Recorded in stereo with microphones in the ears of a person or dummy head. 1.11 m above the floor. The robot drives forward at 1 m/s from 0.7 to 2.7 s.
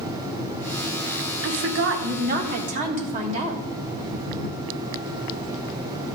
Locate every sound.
1.4 s a woman speaking: 65° right (ahead or behind), 1.0 m; by 3.7 s 35° right (ahead or behind), 1.5 m